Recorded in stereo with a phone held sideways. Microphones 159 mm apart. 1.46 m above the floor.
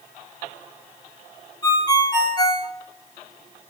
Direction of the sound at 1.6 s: 25° left (ahead or behind).